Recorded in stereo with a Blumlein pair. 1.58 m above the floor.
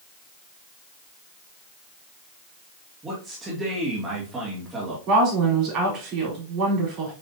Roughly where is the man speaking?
Ahead.